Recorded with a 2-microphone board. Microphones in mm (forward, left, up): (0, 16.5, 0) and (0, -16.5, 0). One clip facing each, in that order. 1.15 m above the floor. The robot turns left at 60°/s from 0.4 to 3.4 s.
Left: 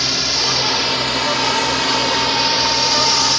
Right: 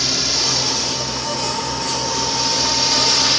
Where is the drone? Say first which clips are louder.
Left 2 dB; 15° left (ahead or behind); by 3.4 s 15° right (ahead or behind).